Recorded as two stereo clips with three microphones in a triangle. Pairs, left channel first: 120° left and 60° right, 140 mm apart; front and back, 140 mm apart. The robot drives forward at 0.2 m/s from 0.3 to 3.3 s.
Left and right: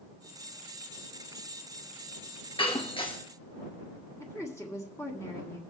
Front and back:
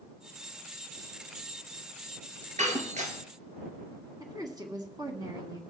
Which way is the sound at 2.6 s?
165° left.